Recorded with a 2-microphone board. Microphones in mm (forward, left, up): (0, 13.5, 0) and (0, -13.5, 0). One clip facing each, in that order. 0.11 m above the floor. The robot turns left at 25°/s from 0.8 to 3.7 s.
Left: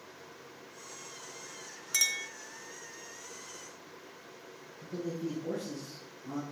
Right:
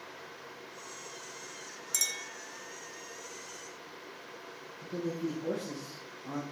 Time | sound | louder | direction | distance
1.9 | a clink | left 4 dB | 35° left (ahead or behind) | 0.8 m
4.8 | a man speaking | right 2 dB | 60° right (ahead or behind) | 3 m